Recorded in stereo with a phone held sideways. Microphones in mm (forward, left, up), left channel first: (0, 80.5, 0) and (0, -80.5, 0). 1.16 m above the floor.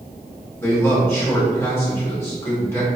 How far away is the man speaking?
About 1.9 m.